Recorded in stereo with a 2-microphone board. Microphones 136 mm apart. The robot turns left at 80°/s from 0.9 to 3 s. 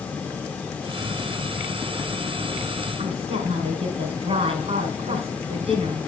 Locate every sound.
3.0 s a woman speaking: 45° right (ahead or behind), 4.5 m